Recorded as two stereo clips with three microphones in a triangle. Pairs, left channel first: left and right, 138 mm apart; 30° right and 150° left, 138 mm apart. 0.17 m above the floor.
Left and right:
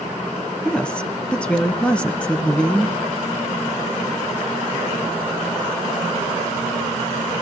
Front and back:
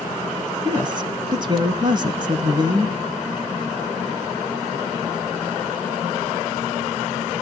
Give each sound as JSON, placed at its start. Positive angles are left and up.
{"t": 0.7, "sound": "a woman speaking", "azimuth_deg": 165, "distance_m": 1.6}